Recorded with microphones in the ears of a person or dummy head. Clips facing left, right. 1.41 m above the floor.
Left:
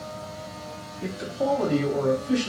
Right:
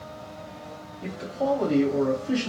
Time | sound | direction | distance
1.0 | a man speaking | 30° left (ahead or behind) | 0.9 m